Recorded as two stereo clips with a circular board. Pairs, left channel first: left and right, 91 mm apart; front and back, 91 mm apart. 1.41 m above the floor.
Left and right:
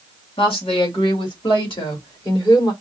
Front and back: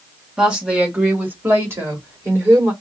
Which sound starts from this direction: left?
A woman speaking, at 0.4 s.